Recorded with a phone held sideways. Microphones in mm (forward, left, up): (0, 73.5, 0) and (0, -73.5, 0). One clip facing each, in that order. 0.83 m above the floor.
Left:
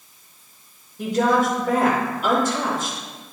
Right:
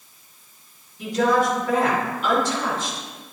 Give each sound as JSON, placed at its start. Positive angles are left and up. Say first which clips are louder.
{"t": 1.0, "sound": "a woman speaking", "louder": "left 1 dB", "side_deg": 55, "distance_m": 3.5}